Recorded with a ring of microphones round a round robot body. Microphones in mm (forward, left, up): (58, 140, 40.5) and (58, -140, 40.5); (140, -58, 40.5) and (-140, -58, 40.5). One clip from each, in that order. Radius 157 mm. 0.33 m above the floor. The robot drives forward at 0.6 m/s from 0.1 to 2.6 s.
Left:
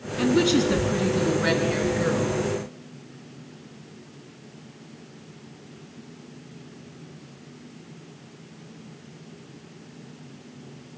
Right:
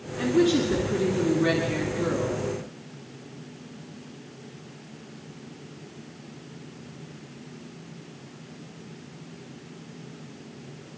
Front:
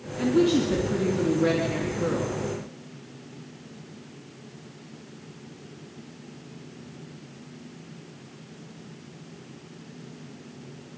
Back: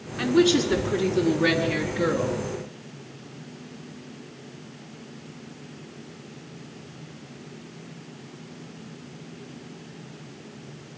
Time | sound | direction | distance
0.2 | a woman speaking | 125° left | 4 m